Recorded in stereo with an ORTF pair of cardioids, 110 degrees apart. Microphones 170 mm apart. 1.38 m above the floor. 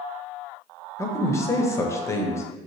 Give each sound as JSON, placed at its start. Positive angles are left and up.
{"t": 1.0, "sound": "a man speaking", "azimuth_deg": 20, "distance_m": 0.6}